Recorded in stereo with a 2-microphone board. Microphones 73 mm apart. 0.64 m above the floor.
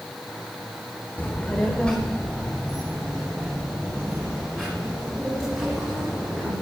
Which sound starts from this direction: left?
A child speaking, at 1.2 s.